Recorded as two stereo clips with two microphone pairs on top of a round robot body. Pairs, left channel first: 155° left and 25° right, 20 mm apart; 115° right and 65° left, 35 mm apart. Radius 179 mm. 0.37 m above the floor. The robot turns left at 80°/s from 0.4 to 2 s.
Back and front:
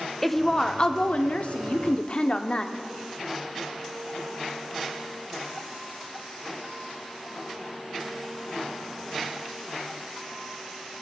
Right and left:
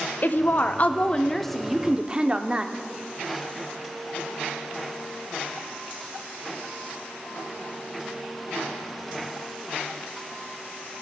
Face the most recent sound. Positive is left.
turn(degrees=115)